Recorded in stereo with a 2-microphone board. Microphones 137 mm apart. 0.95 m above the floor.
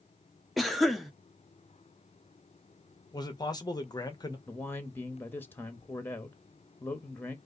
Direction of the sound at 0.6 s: Centre (ahead or behind).